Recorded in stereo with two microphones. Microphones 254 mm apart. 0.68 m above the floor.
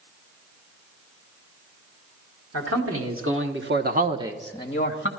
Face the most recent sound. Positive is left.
turn(degrees=45)  # may be behind; listen again after turning